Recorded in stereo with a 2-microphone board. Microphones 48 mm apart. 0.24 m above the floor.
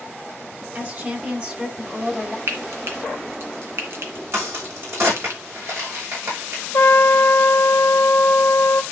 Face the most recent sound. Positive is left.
turn(degrees=70)  # may be behind; listen again after turning